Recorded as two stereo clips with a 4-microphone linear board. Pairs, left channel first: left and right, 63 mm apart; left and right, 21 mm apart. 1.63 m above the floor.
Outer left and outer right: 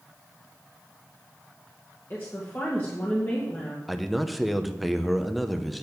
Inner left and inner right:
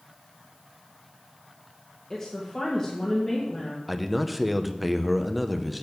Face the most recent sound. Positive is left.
turn(degrees=0)  # may be behind; listen again after turning